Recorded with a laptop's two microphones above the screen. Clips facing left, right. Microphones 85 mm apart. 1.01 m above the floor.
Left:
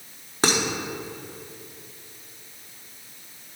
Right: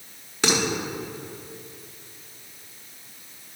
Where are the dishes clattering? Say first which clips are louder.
Left 1 dB; 40° left (ahead or behind), 1.1 m.